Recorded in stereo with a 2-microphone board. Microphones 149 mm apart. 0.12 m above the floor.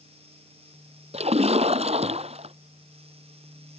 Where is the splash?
45° right (ahead or behind).